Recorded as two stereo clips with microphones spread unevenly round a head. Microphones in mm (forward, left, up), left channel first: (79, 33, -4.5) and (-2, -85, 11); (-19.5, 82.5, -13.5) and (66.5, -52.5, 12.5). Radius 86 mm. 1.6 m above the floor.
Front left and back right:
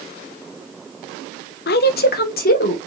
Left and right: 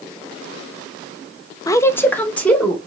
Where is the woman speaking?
55° left, 0.5 m; by 2.8 s 40° left, 1.8 m.